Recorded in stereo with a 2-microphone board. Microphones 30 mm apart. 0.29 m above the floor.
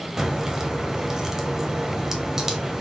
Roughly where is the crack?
Centre.